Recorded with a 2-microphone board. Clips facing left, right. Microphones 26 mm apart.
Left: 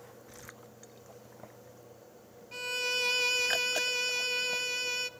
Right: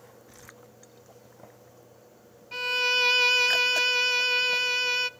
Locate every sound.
2.5 s a violin: 30° right (ahead or behind), 0.5 m